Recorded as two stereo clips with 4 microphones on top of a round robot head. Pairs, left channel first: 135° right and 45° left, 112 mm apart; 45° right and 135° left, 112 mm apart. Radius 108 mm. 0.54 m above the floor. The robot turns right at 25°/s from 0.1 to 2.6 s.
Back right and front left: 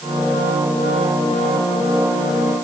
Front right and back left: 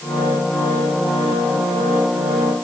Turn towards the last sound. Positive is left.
No sound to turn to.